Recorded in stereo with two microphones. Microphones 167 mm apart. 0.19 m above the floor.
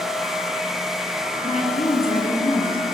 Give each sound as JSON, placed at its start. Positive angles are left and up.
{"t": 1.4, "sound": "a woman speaking", "side_deg": 40, "distance_m": 2.0}